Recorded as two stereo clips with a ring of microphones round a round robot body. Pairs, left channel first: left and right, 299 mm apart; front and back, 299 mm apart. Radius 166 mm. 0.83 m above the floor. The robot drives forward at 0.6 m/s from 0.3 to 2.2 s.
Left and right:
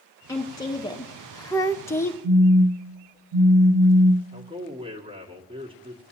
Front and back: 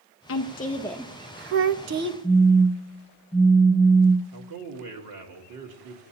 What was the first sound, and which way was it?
A woman speaking, 15° left.